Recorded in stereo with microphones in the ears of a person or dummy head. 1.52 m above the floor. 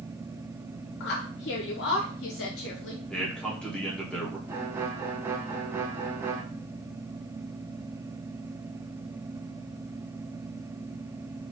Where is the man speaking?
5° left (ahead or behind), 1.2 m.